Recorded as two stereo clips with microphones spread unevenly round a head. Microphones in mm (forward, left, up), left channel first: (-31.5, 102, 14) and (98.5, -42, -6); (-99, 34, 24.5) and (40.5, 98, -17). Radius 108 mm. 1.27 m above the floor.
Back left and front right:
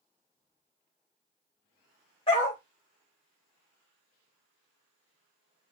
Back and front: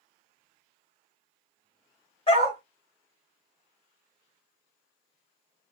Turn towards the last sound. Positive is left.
turn(degrees=-170)